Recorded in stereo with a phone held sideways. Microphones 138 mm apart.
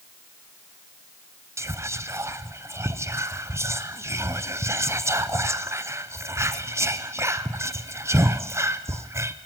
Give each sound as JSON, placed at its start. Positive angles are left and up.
{"t": 1.6, "sound": "whispering", "side_deg": -20, "distance_m": 0.5}